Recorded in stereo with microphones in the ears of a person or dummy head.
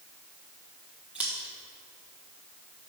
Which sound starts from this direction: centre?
Scissors, at 1.1 s.